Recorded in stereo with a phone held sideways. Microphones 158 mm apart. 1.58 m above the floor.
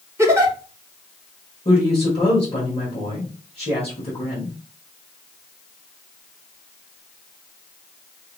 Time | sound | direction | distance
0.2 | a giggle | 15° right (ahead or behind) | 1.5 m
1.6 | a woman speaking | 35° left (ahead or behind) | 2.5 m